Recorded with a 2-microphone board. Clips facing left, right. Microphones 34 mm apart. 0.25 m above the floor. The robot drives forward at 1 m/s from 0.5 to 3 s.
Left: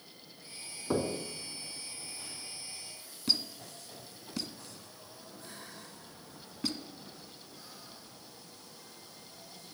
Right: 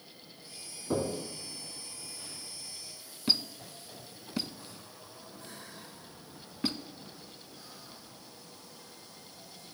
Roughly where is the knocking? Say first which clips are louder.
Even; left.